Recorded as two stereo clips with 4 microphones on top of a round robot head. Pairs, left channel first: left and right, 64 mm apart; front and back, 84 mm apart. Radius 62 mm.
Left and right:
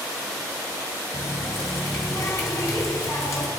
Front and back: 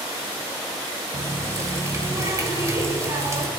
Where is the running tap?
130° left, 1.5 m.